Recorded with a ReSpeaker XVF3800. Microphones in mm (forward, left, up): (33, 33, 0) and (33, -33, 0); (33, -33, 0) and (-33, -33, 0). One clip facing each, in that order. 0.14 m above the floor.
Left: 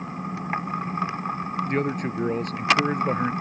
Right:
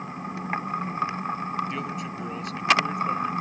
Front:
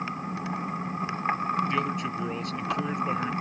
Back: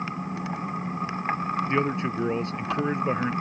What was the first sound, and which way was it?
A man speaking, 125° left.